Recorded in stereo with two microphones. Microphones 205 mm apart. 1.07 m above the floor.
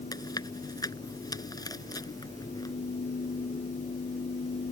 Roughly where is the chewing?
Centre.